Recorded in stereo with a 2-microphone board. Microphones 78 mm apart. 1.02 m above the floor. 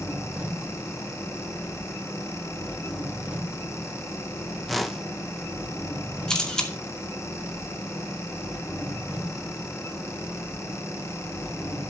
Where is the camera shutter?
10° left (ahead or behind), 2.5 m.